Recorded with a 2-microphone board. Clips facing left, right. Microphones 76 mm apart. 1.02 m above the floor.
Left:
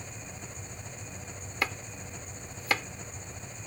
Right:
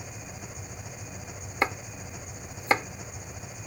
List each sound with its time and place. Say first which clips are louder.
0.0 s an engine running: right 2 dB; 10° right (ahead or behind)
1.6 s chopping: right 5 dB; 30° right (ahead or behind)